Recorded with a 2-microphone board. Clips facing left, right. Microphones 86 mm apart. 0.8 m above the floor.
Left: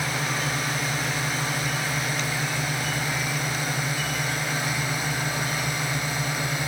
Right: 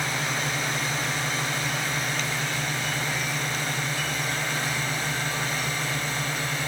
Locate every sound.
0.0 s a drone: 5° left (ahead or behind); by 6.7 s 10° left (ahead or behind)